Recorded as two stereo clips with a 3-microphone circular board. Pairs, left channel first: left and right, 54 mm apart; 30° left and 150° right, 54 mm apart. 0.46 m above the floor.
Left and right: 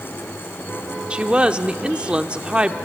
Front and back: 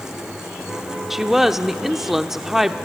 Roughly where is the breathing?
I don't hear breathing.